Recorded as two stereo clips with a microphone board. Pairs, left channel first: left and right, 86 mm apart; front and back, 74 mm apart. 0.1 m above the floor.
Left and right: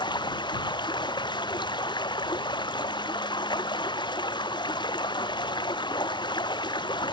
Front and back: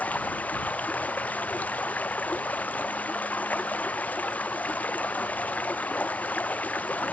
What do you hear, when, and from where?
0.0 s running water: 65° left